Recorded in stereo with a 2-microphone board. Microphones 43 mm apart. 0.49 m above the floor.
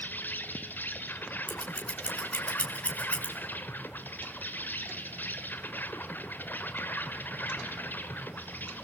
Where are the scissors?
30° left (ahead or behind), 3 m.